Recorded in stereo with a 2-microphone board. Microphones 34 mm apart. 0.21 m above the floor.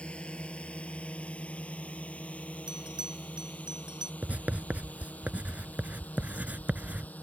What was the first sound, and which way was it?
A drone, 35° left (ahead or behind).